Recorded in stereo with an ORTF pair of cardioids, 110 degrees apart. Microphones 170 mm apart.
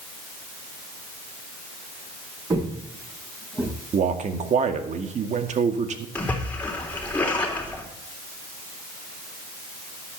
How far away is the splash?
About 4 m.